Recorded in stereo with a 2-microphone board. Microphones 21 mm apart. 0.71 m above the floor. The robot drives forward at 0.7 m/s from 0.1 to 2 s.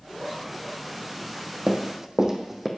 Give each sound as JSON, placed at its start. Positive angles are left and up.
{"t": 1.7, "sound": "running footsteps", "side_deg": -55, "distance_m": 1.5}